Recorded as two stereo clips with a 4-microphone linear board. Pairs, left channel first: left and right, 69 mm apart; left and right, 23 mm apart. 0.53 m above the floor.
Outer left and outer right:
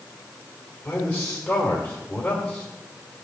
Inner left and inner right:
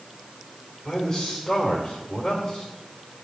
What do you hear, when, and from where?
0.8 s a man speaking: 20° left (ahead or behind), 1.8 m